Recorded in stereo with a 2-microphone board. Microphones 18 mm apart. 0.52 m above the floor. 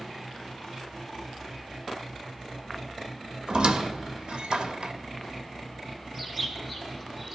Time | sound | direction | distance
3.5 | a squeak | 65° right (ahead or behind) | 0.7 m
6.1 | a bird | 10° right (ahead or behind) | 1.9 m